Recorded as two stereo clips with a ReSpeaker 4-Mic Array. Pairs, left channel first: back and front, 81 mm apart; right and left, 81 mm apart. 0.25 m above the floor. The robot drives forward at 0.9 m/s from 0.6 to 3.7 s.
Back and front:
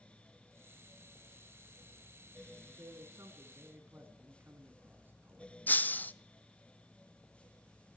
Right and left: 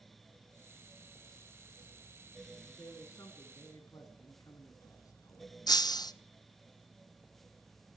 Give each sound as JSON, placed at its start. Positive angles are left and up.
{"t": 2.8, "sound": "a man speaking", "azimuth_deg": -40, "distance_m": 2.5}
{"t": 5.7, "sound": "breaking glass", "azimuth_deg": -115, "distance_m": 0.6}